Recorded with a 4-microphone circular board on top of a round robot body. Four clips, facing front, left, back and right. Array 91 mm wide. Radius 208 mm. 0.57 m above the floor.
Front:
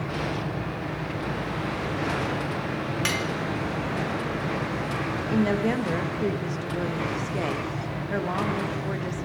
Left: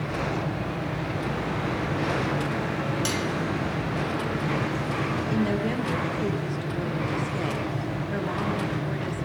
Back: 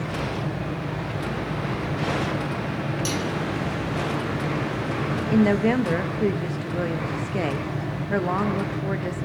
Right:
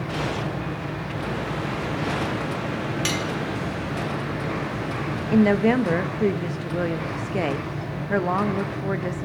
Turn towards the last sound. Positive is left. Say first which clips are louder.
# right 10 dB, back 5 dB
turn(degrees=-115)